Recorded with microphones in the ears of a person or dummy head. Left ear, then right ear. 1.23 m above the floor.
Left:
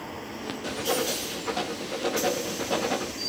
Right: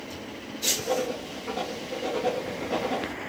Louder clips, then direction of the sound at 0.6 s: Right 2 dB; 35° left (ahead or behind).